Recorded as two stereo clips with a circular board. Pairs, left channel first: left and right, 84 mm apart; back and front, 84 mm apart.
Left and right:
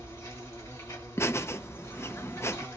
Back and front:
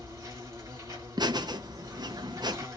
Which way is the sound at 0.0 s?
45° left.